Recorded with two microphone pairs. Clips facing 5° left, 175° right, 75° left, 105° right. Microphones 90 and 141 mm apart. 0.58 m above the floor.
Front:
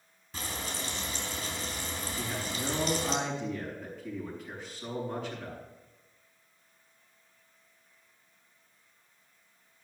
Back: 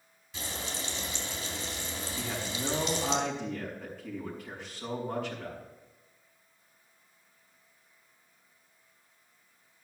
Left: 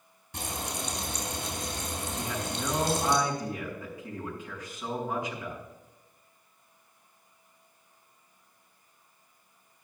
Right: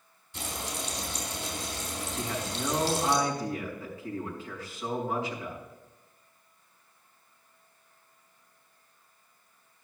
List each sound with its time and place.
0.3 s frying: 60° left, 4 m
2.2 s a man speaking: 145° left, 5 m